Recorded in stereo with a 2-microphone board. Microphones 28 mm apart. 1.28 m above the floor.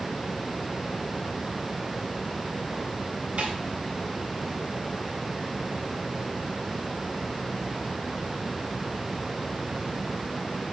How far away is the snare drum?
About 4 m.